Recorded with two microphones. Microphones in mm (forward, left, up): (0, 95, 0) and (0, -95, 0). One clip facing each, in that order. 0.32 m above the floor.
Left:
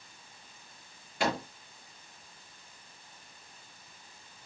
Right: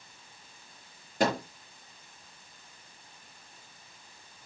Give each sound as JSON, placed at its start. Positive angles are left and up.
{"t": 1.2, "sound": "a microwave", "side_deg": -40, "distance_m": 4.5}